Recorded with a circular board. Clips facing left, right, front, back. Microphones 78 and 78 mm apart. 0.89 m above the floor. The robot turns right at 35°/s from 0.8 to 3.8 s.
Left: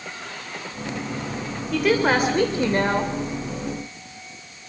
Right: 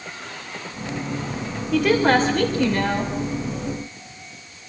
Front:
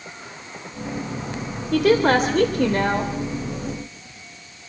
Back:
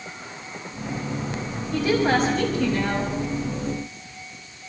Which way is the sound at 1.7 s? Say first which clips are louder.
Right 2 dB, front 4 dB; 5° right.